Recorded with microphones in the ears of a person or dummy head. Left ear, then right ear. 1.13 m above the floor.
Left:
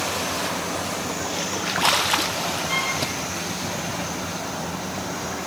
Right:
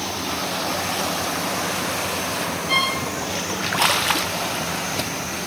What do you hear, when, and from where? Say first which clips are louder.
2.7 s a violin: right 6 dB; 25° right (ahead or behind), 2.0 m